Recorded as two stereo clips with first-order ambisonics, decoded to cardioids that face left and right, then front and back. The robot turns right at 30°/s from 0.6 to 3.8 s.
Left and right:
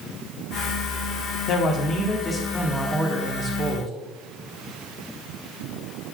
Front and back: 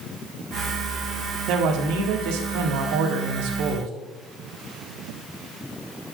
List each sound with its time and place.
1.5 s a man speaking: 140° left, 1.0 m; by 3.9 s 150° right, 1.0 m